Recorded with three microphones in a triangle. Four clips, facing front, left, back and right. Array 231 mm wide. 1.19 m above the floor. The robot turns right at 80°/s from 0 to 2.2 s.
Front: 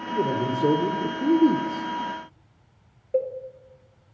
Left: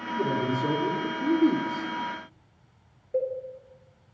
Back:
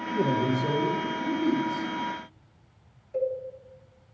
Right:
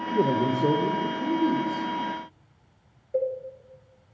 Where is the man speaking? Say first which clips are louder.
Right 4 dB, front 1 dB; 90° right, 0.9 m; by 1.9 s 55° left, 0.9 m.